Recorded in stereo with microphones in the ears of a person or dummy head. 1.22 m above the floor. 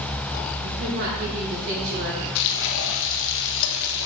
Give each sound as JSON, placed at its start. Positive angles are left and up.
{"t": 0.6, "sound": "a woman speaking", "side_deg": -70, "distance_m": 4.0}
{"t": 2.4, "sound": "frying", "side_deg": 60, "distance_m": 0.9}